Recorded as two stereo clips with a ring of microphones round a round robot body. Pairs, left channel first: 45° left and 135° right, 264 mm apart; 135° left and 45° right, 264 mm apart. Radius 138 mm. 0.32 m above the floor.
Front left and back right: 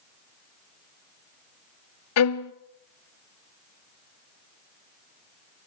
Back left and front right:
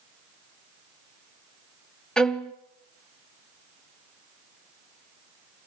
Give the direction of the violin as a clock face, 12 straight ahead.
10 o'clock.